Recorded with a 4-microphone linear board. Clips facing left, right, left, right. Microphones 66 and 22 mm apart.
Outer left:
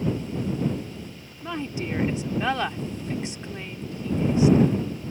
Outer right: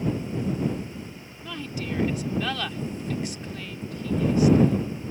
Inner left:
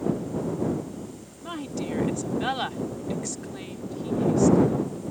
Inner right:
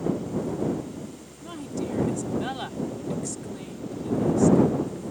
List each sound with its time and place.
1.4 s a woman speaking: 25° left (ahead or behind)